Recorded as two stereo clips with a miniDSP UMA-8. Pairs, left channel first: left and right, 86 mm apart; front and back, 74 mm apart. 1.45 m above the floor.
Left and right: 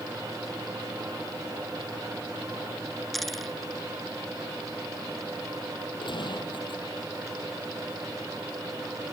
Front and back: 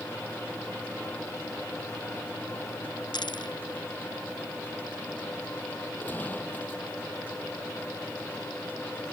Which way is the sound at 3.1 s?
Straight ahead.